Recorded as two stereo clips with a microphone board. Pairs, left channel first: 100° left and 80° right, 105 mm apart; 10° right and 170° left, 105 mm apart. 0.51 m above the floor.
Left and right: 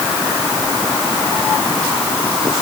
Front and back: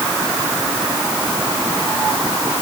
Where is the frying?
No frying in this recording.